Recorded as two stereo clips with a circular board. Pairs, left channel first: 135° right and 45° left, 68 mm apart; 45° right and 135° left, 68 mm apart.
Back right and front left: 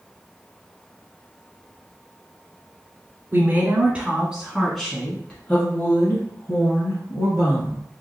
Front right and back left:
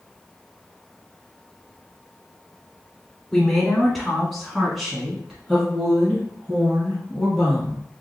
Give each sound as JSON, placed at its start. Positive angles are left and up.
{"t": 3.3, "sound": "a woman speaking", "azimuth_deg": 35, "distance_m": 1.3}